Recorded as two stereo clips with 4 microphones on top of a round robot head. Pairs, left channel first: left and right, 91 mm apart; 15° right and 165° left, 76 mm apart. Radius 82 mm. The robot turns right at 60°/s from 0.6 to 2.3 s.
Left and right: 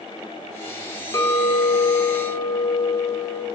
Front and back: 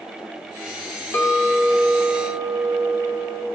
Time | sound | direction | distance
1.1 | a clink | 40° left | 1.1 m